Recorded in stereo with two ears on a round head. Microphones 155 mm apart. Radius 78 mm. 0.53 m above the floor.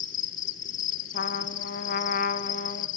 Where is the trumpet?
55° left (ahead or behind), 0.6 m.